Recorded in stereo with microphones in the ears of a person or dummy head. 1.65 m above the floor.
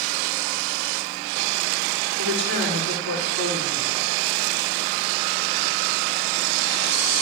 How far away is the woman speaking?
About 5 m.